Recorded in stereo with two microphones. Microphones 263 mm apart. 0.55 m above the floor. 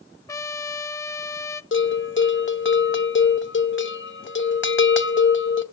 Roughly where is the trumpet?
Centre.